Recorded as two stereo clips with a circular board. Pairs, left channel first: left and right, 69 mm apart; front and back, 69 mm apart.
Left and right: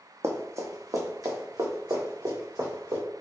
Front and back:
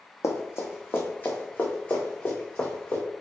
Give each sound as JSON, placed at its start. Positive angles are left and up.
{"t": 0.2, "sound": "running footsteps", "azimuth_deg": -45, "distance_m": 1.1}